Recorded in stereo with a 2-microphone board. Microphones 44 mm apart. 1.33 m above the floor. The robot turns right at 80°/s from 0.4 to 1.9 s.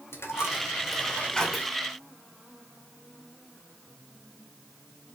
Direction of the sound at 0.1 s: 75° left (ahead or behind).